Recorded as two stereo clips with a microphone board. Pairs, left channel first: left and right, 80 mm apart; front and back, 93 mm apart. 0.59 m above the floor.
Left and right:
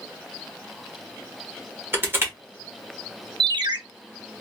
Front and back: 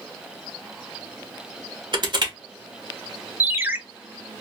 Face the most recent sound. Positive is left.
turn(degrees=-110)